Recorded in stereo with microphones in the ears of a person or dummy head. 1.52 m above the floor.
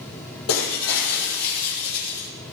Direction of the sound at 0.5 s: 80° left.